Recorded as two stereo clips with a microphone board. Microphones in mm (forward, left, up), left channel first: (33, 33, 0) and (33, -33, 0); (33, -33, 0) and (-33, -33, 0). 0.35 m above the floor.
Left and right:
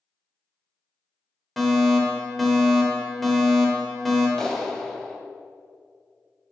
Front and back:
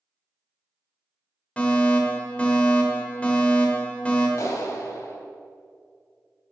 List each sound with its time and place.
1.6 s a fire alarm: straight ahead, 1.9 m
4.4 s a clap: 10° left, 1.4 m